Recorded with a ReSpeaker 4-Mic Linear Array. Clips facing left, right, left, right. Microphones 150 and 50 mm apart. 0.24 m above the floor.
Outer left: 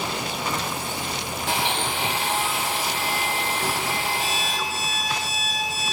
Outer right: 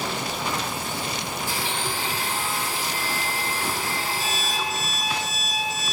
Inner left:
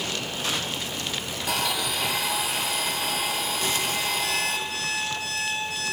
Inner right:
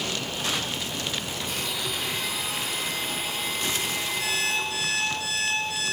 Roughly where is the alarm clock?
Right.